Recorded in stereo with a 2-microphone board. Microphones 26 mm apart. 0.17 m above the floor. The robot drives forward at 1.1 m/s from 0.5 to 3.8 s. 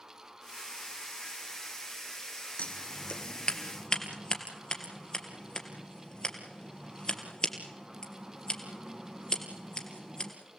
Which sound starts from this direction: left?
Scissors, at 2.6 s.